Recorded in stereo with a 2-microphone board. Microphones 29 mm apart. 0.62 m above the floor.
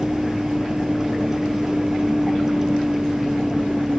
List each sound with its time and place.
0.0 s a vehicle: 15° right (ahead or behind)